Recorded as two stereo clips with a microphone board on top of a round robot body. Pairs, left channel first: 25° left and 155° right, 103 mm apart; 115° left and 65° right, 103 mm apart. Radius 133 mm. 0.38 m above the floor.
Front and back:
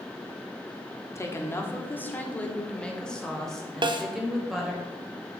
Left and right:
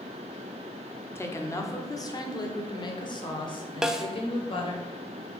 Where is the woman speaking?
65° left, 1.7 m; by 4.8 s 115° left, 3 m.